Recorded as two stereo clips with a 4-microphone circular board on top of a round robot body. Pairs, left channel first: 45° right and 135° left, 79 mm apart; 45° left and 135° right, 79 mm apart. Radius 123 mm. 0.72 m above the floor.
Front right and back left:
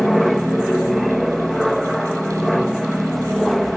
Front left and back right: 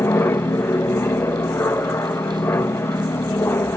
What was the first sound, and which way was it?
An aircraft, 45° left.